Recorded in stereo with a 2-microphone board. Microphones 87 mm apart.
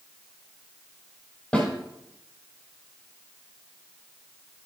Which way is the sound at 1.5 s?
10° left (ahead or behind).